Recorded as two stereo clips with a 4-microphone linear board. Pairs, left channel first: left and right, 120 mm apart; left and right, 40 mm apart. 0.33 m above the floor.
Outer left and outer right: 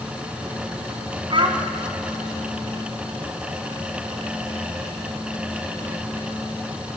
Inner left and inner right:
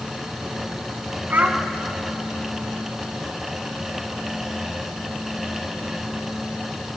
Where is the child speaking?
45° right (ahead or behind), 2.5 m.